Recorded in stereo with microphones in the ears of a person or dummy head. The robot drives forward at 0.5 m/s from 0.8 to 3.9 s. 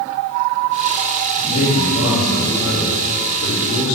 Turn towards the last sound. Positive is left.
turn(degrees=80)